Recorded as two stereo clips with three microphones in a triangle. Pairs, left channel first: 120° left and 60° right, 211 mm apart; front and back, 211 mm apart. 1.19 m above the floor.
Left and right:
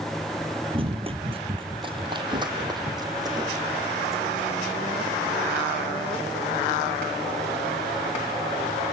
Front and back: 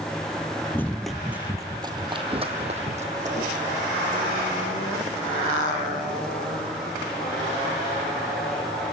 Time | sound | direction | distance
0.7 | running footsteps | 65° right | 1.3 m